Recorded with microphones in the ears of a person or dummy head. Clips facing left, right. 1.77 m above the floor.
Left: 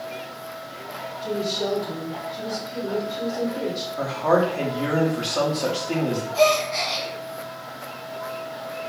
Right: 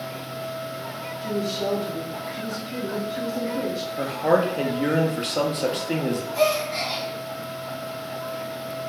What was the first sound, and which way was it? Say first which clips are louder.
A woman speaking: even; 50° right (ahead or behind).